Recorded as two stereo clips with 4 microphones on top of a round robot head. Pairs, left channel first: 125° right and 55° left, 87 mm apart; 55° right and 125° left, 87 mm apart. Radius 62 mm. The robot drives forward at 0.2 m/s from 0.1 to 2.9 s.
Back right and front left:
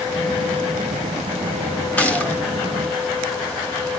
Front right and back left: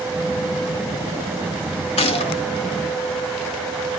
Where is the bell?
I don't hear a bell.